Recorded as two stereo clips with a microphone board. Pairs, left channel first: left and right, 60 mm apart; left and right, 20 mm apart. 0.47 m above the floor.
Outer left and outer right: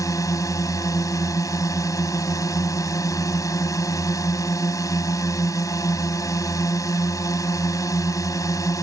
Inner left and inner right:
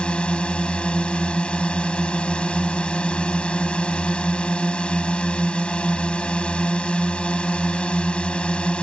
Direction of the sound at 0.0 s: 60° left (ahead or behind).